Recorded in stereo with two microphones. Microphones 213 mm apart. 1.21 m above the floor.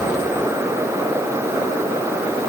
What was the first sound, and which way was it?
Only background noise.